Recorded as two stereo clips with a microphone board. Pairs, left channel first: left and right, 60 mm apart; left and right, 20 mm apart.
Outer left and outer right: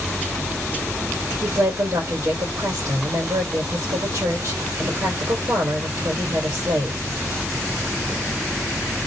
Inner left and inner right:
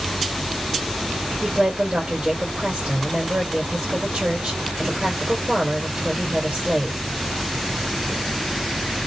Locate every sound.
1.4 s a woman speaking: 75° right (ahead or behind), 1.4 m